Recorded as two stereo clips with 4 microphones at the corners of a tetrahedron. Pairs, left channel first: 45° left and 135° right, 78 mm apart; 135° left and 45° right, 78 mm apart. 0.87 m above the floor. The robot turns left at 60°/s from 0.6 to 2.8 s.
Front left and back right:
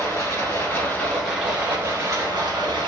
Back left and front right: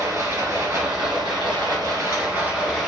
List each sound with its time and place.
0.0 s running water: 10° right, 1.9 m; by 2.9 s 140° right, 1.9 m